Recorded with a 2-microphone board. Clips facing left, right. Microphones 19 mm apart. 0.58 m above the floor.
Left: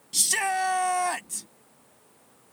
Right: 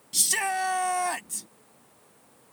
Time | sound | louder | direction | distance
0.1 | a shout | left 1 dB | 5° left (ahead or behind) | ?